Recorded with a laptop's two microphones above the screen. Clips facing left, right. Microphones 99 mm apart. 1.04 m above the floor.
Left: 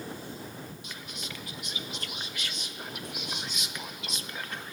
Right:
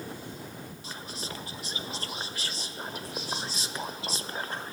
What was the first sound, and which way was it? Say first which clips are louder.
Whispering: right 3 dB; 35° right (ahead or behind).